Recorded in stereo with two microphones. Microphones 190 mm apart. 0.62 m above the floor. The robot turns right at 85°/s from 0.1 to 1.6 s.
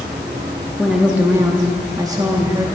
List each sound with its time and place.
0.8 s a woman speaking: centre (ahead or behind), 0.9 m; by 2.6 s 20° right (ahead or behind), 0.9 m